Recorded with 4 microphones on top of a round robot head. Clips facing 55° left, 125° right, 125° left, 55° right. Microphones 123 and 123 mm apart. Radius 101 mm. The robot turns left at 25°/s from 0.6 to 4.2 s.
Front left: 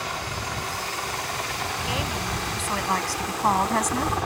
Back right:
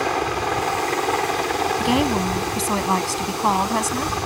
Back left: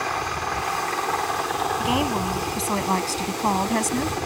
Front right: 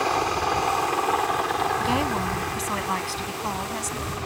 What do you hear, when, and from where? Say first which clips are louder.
0.0 s a helicopter: back right 10 dB, front right 4 dB; 125° right; by 4.3 s 145° left
1.8 s a woman speaking: back right 11 dB, back left 1 dB; 155° right; by 4.2 s 145° left